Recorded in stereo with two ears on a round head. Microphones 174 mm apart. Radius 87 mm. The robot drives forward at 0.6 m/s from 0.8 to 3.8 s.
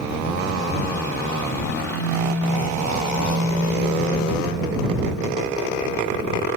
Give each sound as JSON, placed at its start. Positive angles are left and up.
{"t": 1.9, "sound": "a phone buzzing", "side_deg": -45, "distance_m": 1.7}